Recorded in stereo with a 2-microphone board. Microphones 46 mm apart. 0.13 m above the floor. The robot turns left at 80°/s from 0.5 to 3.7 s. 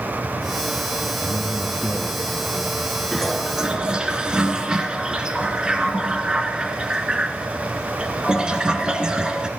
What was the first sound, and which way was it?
A man speaking, 135° right.